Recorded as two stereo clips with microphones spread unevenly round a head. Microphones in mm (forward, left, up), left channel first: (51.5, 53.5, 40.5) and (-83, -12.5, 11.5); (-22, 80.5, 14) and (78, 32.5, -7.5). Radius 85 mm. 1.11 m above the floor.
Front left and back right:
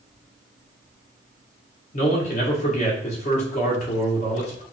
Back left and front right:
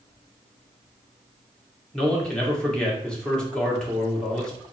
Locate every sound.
1.9 s a man speaking: 65° left, 1.5 m